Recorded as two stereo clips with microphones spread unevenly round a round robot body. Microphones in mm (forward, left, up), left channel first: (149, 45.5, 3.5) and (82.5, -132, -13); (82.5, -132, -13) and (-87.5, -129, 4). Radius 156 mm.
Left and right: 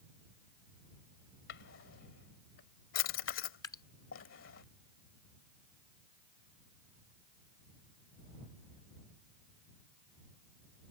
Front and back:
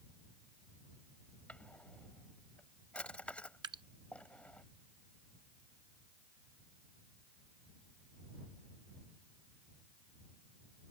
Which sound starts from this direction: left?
A drawer, at 1.5 s.